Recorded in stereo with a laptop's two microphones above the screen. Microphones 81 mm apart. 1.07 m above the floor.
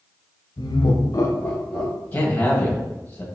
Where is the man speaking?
25° left (ahead or behind), 1.6 m.